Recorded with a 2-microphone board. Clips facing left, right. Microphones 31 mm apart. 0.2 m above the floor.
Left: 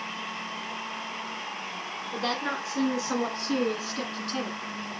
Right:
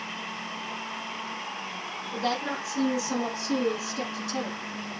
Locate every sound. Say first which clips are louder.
2.1 s a woman speaking: right 1 dB; 40° left (ahead or behind), 2 m; by 4.6 s 55° left (ahead or behind), 2.5 m